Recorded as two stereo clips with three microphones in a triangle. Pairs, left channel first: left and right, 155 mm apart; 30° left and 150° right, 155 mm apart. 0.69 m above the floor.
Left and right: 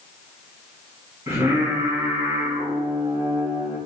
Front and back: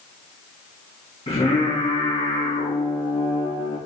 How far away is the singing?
About 4.5 m.